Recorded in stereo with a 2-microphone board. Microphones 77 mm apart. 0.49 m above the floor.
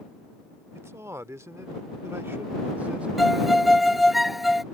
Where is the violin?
Centre (ahead or behind).